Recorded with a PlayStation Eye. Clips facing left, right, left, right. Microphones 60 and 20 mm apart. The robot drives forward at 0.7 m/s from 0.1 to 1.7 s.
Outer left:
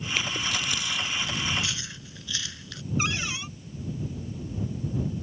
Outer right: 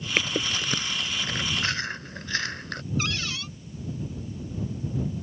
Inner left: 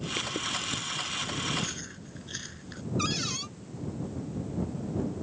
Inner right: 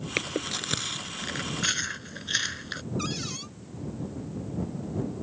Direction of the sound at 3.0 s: 20° left (ahead or behind).